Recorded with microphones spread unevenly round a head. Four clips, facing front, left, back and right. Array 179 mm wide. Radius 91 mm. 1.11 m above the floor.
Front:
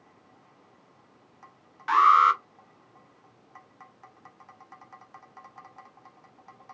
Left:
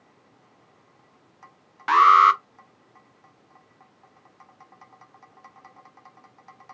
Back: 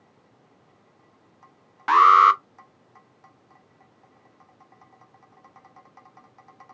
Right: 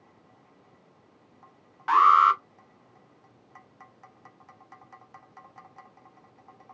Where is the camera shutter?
No camera shutter in this recording.